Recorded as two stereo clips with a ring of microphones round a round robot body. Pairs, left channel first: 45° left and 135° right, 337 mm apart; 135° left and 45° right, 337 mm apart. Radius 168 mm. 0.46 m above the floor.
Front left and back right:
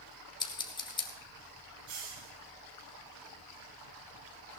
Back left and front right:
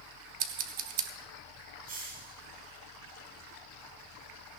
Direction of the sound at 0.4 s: 25° right.